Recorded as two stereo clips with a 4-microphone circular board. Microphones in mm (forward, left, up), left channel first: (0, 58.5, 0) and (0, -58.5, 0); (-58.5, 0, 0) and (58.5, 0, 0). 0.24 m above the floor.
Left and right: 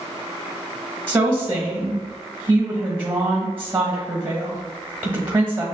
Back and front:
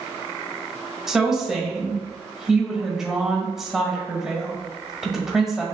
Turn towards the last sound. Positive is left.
turn(degrees=-80)